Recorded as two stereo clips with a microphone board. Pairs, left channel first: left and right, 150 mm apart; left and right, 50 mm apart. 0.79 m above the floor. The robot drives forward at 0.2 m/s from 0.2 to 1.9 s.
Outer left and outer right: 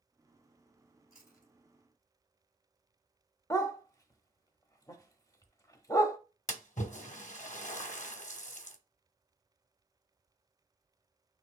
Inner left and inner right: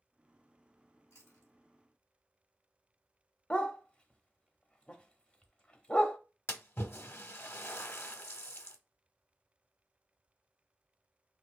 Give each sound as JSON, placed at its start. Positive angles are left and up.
{"t": 1.1, "sound": "chewing", "side_deg": 80, "distance_m": 2.5}
{"t": 3.5, "sound": "a dog barking", "side_deg": 25, "distance_m": 0.7}
{"t": 6.5, "sound": "a splash", "side_deg": 55, "distance_m": 0.7}